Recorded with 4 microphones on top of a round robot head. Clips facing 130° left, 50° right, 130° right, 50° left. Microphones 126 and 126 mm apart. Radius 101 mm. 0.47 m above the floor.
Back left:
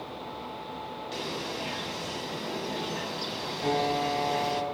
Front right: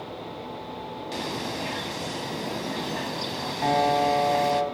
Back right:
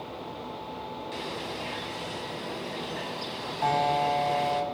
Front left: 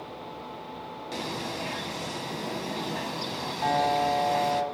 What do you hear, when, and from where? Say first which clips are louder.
1.1 s a bird: front right 4 dB, front left 5 dB; 5° right, 0.7 m
3.6 s a piano: front right 6 dB, even; 55° right, 1.8 m